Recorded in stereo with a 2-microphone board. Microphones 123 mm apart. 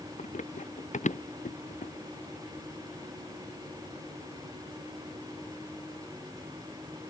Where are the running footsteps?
75° left (ahead or behind); by 1.9 s 80° left.